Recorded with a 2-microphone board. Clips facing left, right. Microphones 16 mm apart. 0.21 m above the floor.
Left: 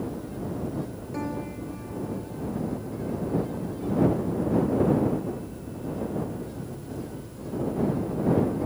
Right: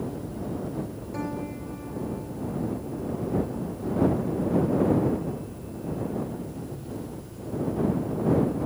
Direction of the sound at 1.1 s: 5° left (ahead or behind).